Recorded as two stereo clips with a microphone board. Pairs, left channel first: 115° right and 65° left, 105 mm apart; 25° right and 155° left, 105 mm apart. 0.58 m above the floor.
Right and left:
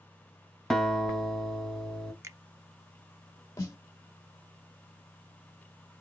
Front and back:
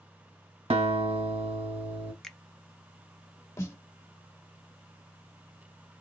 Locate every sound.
0.7 s a guitar: 160° left, 0.8 m
2.2 s a finger snap: 55° left, 0.5 m
3.6 s a snare drum: 70° right, 0.7 m